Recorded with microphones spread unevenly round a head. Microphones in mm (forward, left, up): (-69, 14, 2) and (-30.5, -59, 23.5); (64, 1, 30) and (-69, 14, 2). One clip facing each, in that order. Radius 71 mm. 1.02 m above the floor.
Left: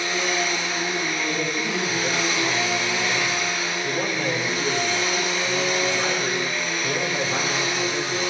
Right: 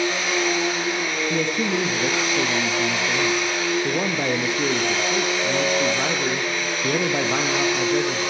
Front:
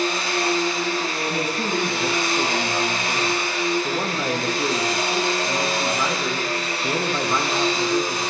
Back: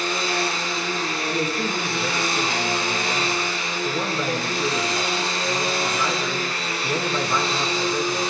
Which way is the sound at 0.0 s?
55° right.